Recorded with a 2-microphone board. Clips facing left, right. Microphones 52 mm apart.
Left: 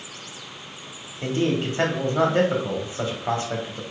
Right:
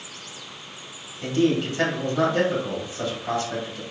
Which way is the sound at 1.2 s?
30° left (ahead or behind).